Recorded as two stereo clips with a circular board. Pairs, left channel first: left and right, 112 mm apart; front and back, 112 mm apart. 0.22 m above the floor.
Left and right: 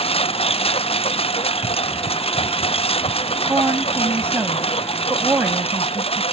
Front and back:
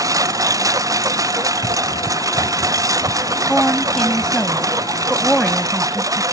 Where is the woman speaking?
75° right.